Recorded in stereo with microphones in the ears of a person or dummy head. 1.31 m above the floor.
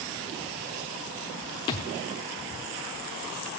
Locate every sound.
1.7 s a thud: 20° left (ahead or behind), 1.0 m